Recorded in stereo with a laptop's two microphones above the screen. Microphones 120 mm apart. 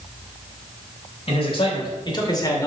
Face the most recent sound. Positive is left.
turn(degrees=30)  # may be behind; listen again after turning